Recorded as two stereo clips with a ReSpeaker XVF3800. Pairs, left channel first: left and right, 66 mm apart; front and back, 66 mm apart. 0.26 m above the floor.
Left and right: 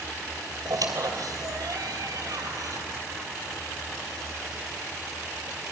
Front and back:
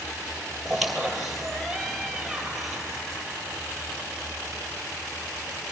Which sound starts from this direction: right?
A squeak, at 0.7 s.